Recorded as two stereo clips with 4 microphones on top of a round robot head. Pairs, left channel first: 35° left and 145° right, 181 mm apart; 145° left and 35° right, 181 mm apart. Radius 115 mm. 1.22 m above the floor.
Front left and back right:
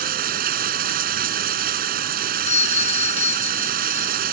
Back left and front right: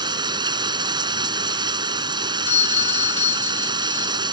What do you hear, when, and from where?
0.0 s running water: 100° right
2.5 s a doorbell: 90° left